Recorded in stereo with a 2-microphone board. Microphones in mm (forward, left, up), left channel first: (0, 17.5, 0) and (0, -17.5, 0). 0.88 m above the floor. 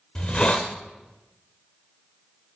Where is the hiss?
25° left (ahead or behind), 1.3 m.